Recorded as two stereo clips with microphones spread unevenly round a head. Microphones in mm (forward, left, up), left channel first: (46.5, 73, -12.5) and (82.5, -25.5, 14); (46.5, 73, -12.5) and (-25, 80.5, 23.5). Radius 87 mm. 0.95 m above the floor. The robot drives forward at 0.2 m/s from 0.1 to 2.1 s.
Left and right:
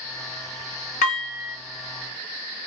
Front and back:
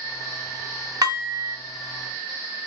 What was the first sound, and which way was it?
Dishes clattering, 145° left.